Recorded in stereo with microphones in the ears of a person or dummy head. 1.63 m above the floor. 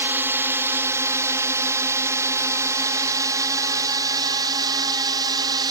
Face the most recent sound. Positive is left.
turn(degrees=-25)  # may be behind; listen again after turning